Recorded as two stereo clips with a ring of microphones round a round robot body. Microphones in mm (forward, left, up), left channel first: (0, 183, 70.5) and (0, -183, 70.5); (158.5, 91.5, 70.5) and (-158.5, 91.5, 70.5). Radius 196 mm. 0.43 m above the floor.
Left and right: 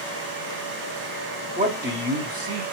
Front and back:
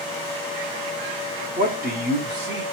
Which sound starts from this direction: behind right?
A man speaking, at 1.6 s.